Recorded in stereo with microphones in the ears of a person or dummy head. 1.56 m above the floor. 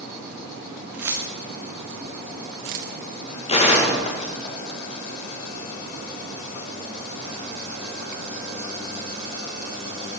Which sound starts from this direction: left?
A gunshot, at 3.5 s.